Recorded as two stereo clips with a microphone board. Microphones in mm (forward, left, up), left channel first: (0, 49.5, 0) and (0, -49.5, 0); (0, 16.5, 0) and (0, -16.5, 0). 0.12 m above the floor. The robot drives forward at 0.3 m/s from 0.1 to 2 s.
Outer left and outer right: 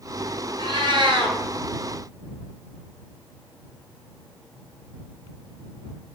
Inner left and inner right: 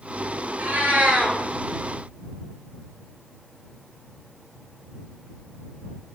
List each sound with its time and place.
0.6 s a cat meowing: 55° right (ahead or behind), 0.5 m; by 1.4 s 50° right (ahead or behind), 0.6 m